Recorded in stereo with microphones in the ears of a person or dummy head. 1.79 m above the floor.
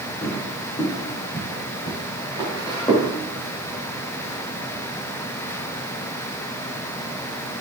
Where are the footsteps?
25° left (ahead or behind), 3.5 m; by 3.1 s 10° left (ahead or behind), 5.5 m.